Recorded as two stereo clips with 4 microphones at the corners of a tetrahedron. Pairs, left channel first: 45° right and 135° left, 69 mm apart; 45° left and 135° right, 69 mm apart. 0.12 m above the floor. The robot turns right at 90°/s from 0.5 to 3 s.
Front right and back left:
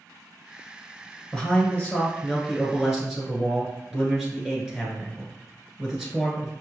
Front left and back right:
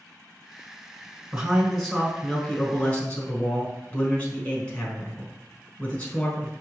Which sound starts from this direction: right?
A man speaking, at 1.3 s.